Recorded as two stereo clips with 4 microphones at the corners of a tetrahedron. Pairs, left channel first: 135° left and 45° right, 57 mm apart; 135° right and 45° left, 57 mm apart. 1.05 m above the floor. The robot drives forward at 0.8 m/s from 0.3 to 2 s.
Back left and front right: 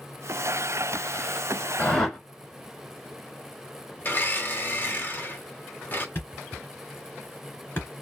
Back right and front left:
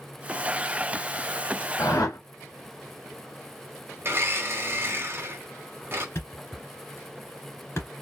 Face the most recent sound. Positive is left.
turn(degrees=-175)